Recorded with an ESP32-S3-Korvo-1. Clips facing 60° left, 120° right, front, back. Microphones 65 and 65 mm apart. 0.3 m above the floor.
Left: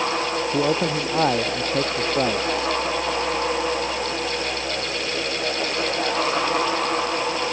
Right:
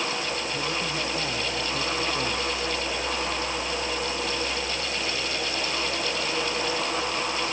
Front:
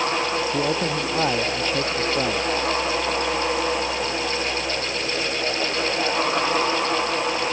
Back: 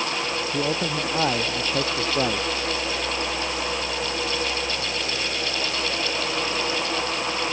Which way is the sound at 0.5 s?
85° left.